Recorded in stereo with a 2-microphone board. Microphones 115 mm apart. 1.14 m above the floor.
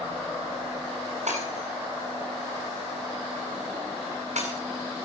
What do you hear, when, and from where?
1.3 s breaking glass: 80° right, 7.5 m